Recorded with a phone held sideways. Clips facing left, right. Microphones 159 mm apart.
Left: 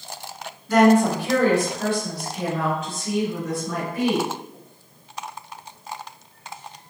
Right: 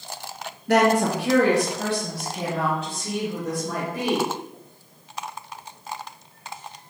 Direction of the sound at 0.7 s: 70° right (ahead or behind).